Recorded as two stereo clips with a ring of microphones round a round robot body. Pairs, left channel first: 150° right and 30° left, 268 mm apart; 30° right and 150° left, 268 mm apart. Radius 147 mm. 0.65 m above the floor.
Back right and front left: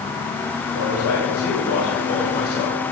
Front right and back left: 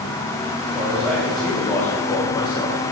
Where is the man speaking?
125° right, 4 m; by 2.8 s 95° right, 3 m.